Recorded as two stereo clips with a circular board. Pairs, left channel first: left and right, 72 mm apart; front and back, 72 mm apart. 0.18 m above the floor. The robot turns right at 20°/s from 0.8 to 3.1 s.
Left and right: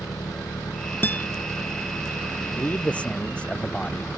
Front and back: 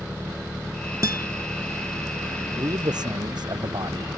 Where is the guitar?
150° left; by 1.3 s 155° left.